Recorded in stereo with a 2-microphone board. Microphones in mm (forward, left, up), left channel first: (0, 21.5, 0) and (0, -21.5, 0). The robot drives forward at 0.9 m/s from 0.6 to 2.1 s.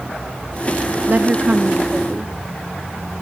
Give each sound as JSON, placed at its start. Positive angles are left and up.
{"t": 1.1, "sound": "a woman speaking", "side_deg": -45, "distance_m": 0.7}